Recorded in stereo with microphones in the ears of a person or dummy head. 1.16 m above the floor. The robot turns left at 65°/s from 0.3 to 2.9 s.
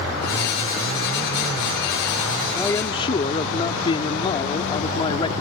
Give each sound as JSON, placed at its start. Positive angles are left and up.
{"t": 2.5, "sound": "a man speaking", "side_deg": 10}